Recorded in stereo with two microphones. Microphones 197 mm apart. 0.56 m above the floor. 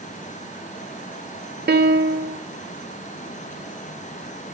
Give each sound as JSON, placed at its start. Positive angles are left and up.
{"t": 1.7, "sound": "a piano", "side_deg": -55, "distance_m": 2.0}